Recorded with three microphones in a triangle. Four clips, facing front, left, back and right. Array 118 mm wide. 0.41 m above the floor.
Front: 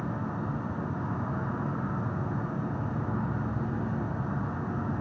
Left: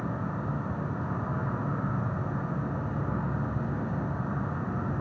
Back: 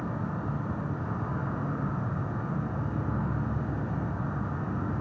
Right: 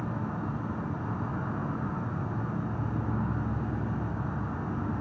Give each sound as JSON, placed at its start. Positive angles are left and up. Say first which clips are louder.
{"t": 0.0, "sound": "an insect", "louder": "left 1 dB, even", "azimuth_deg": 90, "distance_m": 0.9}